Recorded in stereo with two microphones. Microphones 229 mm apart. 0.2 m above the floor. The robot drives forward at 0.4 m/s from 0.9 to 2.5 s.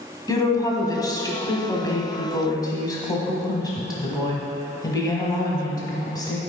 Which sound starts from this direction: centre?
A woman speaking, at 0.3 s.